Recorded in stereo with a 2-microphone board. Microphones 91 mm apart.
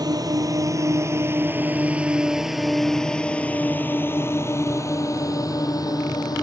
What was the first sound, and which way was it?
A drone, 50° right (ahead or behind).